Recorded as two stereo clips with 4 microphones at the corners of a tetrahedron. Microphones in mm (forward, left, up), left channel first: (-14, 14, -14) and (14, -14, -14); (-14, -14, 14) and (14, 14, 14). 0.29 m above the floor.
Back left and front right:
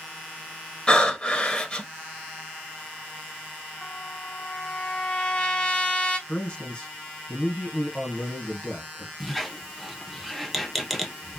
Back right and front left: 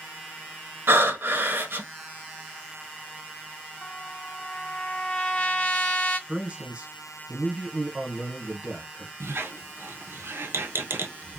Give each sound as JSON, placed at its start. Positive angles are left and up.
{"t": 0.9, "sound": "breathing", "azimuth_deg": 70, "distance_m": 0.8}
{"t": 3.8, "sound": "a trumpet", "azimuth_deg": 170, "distance_m": 1.4}
{"t": 6.3, "sound": "a man speaking", "azimuth_deg": 90, "distance_m": 1.7}
{"t": 9.2, "sound": "a squeak", "azimuth_deg": 45, "distance_m": 0.6}